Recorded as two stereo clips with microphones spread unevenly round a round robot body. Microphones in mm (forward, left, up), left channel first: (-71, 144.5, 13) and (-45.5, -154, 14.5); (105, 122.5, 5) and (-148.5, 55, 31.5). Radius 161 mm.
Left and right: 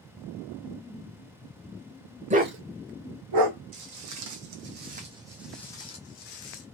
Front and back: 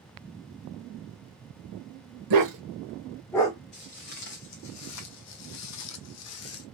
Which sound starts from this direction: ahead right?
Footsteps, at 3.7 s.